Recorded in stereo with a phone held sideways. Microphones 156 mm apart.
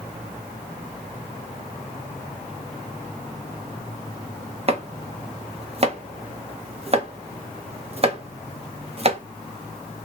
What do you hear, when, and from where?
4.7 s chopping: 40° right (ahead or behind), 0.7 m